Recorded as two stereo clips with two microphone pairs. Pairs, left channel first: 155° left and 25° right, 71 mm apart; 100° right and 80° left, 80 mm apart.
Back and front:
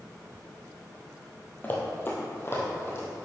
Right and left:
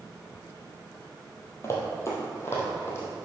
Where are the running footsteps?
150° right, 1.6 m; by 3.2 s 155° right, 2.5 m.